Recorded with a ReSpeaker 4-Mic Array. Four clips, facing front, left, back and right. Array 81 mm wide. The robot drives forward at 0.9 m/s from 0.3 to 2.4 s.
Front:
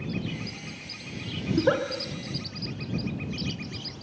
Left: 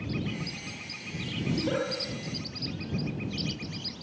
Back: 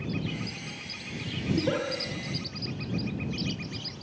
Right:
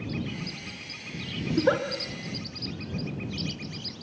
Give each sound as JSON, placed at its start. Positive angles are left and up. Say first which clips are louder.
{"t": 1.5, "sound": "a giggle", "louder": "right 6 dB, front 4 dB", "azimuth_deg": -50, "distance_m": 6.0}